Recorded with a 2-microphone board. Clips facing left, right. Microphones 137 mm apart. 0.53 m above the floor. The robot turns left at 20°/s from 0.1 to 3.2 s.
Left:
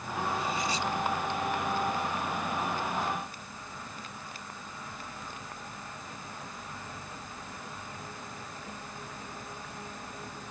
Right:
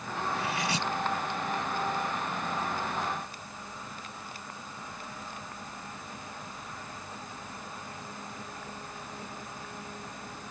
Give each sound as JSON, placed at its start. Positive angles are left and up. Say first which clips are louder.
{"t": 0.3, "sound": "cutlery clinking", "louder": "right 1 dB", "side_deg": -80}